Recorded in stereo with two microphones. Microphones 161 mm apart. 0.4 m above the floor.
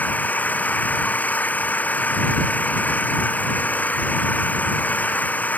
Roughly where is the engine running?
Centre.